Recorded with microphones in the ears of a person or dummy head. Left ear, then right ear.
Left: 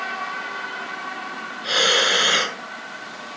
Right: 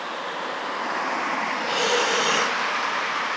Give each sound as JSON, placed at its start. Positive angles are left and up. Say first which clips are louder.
{"t": 1.6, "sound": "breathing", "louder": "left 6 dB", "side_deg": 30, "distance_m": 1.7}